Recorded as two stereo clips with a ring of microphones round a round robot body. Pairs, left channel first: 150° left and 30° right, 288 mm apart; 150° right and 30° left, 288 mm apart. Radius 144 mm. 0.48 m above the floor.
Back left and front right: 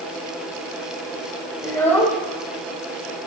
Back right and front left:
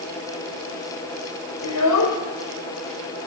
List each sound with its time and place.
1.6 s a child speaking: 140° right, 1.1 m